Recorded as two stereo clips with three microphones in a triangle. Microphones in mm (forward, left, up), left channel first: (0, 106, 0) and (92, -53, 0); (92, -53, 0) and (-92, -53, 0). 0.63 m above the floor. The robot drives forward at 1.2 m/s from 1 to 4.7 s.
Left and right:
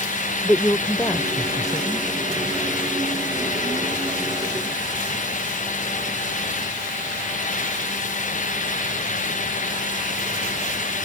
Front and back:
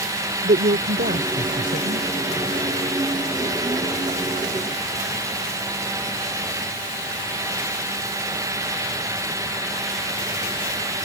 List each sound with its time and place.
0.4 s a woman speaking: 165° right; by 2.1 s 170° right